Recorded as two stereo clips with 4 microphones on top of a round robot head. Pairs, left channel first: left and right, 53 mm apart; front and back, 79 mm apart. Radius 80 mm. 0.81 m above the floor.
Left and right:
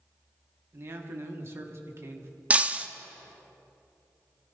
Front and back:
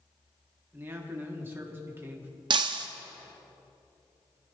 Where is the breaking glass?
155° right, 0.7 m.